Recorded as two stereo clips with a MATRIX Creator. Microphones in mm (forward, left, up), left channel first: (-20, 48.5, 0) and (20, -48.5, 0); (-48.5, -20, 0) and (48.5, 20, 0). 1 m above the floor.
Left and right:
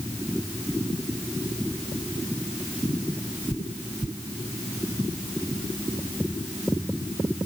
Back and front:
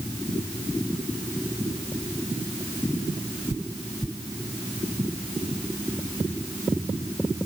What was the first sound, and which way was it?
Only background noise.